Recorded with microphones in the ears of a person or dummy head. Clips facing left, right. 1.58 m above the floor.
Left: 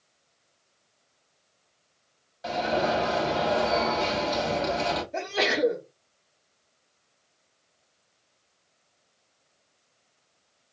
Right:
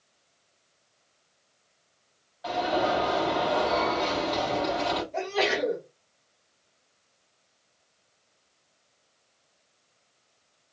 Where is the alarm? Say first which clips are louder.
Even; 40° left (ahead or behind), 4 m.